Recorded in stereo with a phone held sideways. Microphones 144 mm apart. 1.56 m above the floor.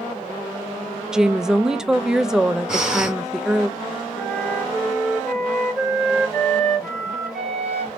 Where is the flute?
Centre (ahead or behind), 3.5 m.